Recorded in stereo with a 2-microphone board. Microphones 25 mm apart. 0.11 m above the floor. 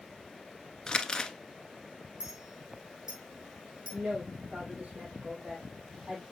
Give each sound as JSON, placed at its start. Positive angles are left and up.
{"t": 0.9, "sound": "crumpling", "side_deg": 30, "distance_m": 0.9}
{"t": 2.2, "sound": "a clink", "side_deg": -35, "distance_m": 3.5}
{"t": 3.9, "sound": "a woman speaking", "side_deg": -75, "distance_m": 4.5}